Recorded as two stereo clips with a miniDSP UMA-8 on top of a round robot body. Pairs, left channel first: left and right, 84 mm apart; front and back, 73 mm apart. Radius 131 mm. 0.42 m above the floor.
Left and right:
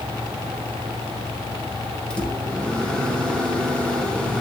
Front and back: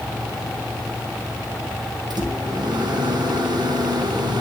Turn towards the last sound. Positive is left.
turn(degrees=170)